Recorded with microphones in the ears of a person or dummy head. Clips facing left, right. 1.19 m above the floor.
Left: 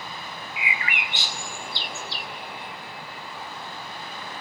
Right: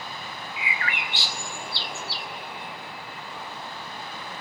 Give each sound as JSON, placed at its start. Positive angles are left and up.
{"t": 0.6, "sound": "a bird", "side_deg": 15, "distance_m": 1.1}